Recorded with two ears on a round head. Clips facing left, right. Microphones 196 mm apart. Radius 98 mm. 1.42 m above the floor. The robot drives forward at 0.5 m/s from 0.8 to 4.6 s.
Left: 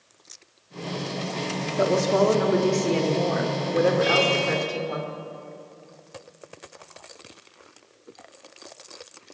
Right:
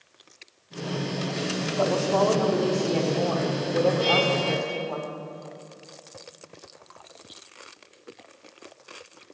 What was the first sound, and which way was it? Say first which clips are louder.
A woman speaking: left 3 dB; 30° left (ahead or behind).